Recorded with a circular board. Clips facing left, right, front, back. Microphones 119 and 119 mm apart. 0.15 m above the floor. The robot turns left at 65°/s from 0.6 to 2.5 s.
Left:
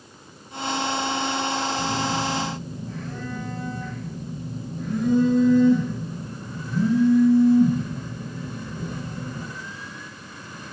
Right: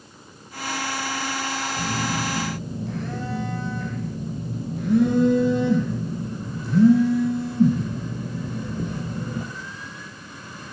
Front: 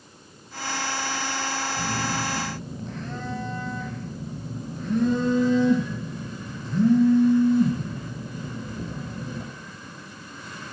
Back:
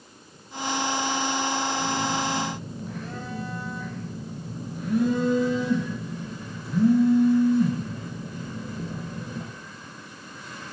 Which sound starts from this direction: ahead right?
A phone buzzing, at 1.8 s.